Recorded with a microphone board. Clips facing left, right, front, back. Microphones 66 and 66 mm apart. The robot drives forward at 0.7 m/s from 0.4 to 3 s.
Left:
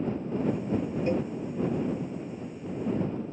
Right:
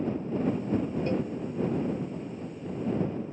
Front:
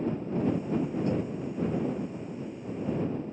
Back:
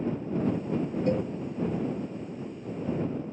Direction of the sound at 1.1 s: 160° left.